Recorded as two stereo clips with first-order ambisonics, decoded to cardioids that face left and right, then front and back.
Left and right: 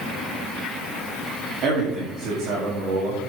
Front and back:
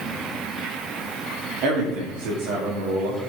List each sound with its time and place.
1.6 s a man speaking: 140° right, 2 m